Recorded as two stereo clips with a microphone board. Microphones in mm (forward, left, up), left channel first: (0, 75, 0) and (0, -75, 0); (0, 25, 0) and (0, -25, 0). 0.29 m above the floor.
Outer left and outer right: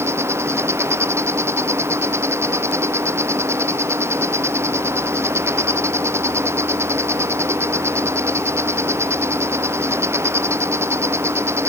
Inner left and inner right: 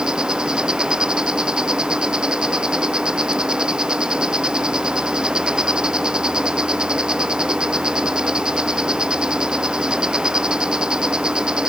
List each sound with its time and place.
0.0 s an insect: 15° right (ahead or behind)